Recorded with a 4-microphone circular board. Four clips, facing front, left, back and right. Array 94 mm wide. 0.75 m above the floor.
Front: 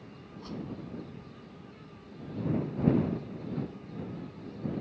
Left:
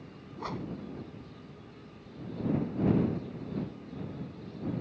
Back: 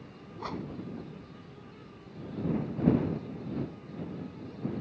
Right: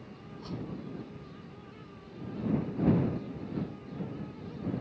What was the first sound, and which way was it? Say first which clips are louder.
A whoosh: left 3 dB, back 3 dB; 130° left.